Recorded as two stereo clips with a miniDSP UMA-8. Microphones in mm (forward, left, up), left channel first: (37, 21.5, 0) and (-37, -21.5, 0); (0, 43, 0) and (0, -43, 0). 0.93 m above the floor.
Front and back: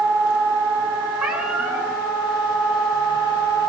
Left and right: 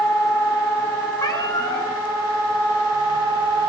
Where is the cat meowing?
130° left, 5.5 m.